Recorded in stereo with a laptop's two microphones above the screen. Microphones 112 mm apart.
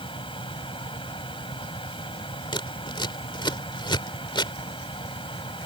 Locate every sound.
0.0 s a fan: 50° left (ahead or behind)
2.5 s scissors: 45° left (ahead or behind)